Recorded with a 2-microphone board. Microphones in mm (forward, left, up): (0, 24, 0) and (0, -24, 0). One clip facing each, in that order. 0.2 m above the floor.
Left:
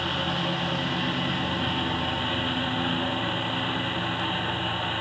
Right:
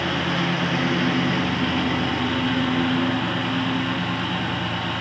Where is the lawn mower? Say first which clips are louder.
Right 4 dB; 60° right (ahead or behind); by 5.0 s 70° right (ahead or behind).